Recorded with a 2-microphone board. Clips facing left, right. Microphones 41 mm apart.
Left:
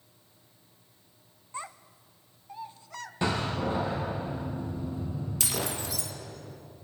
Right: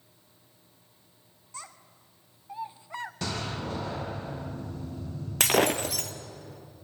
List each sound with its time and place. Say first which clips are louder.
1.5 s a child speaking: left 6 dB; 25° left (ahead or behind), 0.8 m; by 3.1 s 25° right (ahead or behind), 1.0 m
3.2 s a door slam: left 7 dB; 20° left (ahead or behind), 5 m
5.4 s breaking glass: right 12 dB; 55° right (ahead or behind), 1.2 m